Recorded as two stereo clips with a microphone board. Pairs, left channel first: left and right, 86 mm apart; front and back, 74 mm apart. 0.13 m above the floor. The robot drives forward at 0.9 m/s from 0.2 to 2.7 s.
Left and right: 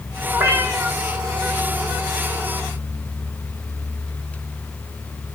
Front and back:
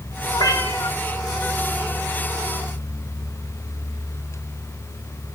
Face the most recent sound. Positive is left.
turn(degrees=-50)